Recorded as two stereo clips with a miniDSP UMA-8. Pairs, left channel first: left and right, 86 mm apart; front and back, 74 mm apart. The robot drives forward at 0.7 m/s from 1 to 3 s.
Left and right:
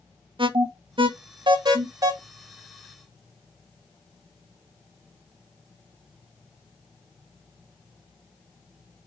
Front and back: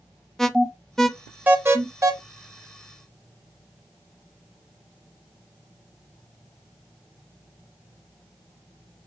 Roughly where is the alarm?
Right.